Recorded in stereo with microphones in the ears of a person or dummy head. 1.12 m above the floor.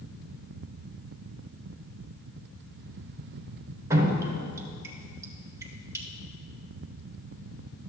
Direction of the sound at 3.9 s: 15° right (ahead or behind).